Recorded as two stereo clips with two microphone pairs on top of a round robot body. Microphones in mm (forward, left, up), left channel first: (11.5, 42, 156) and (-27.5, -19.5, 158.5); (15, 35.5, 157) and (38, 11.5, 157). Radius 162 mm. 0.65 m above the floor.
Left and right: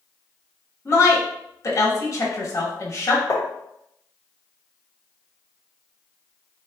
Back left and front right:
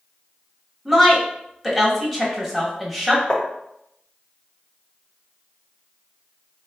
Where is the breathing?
No breathing in this recording.